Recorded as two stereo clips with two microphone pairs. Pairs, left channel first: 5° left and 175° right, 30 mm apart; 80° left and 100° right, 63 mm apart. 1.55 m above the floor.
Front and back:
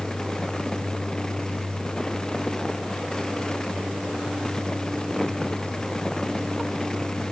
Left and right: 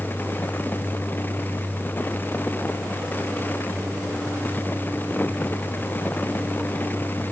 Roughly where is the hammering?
No hammering in this recording.